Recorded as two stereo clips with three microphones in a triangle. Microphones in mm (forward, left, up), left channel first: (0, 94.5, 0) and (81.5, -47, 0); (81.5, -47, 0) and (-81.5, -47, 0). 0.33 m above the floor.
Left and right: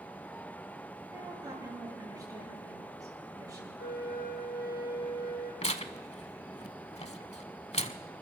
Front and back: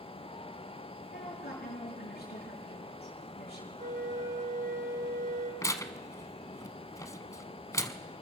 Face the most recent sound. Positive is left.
turn(degrees=70)